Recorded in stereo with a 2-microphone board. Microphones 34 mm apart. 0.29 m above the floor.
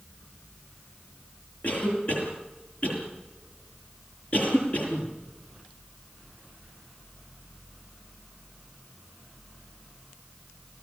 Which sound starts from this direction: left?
A cough, at 1.6 s.